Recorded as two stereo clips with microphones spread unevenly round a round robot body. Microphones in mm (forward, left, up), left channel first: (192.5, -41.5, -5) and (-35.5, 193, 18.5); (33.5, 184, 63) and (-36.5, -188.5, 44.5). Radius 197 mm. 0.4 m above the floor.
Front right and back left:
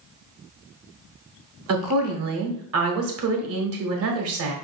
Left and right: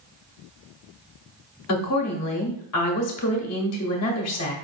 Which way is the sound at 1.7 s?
110° left.